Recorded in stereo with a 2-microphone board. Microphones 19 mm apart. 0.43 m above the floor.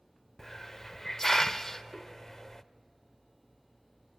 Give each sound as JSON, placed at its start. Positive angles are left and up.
{"t": 0.4, "sound": "a hiss", "side_deg": 35, "distance_m": 0.5}